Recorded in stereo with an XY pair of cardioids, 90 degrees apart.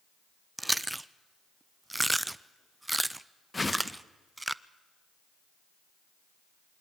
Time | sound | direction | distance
0.6 | chewing | 10° right | 0.5 m
3.5 | a whoosh | 20° left | 1.2 m